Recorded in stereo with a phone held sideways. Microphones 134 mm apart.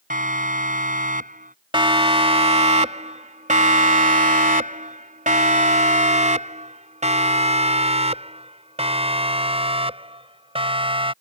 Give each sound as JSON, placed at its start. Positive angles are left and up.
{"t": 0.1, "sound": "a siren", "side_deg": -85}
{"t": 1.7, "sound": "a siren", "side_deg": -40}